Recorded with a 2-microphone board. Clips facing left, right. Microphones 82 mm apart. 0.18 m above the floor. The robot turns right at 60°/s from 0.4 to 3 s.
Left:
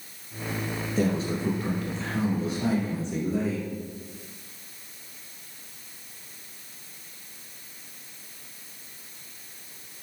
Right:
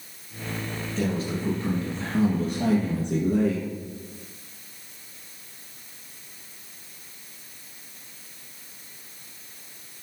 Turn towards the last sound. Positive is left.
turn(degrees=-105)